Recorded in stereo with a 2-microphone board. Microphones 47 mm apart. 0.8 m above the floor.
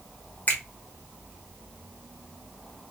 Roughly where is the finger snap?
Left.